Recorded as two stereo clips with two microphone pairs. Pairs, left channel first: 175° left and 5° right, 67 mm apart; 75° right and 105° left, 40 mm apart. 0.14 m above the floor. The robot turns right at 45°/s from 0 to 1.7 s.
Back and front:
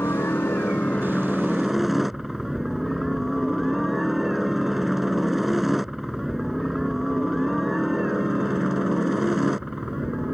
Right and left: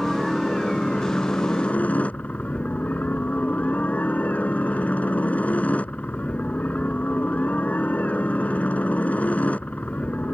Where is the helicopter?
165° right; by 10.3 s 90° right.